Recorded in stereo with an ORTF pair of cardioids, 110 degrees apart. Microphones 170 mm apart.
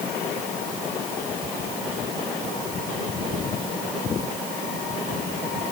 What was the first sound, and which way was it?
Only background noise.